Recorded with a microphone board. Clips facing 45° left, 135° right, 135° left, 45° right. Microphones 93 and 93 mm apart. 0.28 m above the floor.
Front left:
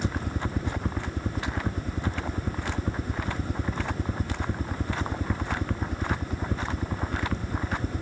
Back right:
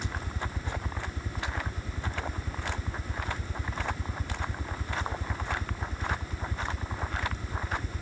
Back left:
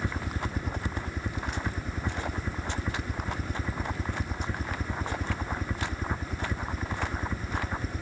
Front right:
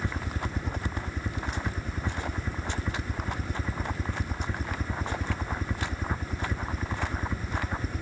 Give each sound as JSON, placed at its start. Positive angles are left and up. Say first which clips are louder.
{"t": 0.0, "sound": "a helicopter", "louder": "front left 6 dB, even", "azimuth_deg": 50}